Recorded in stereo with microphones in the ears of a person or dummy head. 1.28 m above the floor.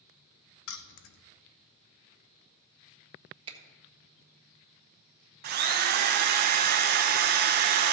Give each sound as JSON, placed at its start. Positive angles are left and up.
{"t": 0.7, "sound": "keys jangling", "side_deg": 60, "distance_m": 0.7}
{"t": 3.5, "sound": "a finger snap", "side_deg": -30, "distance_m": 1.3}
{"t": 5.4, "sound": "a drill", "side_deg": -45, "distance_m": 0.7}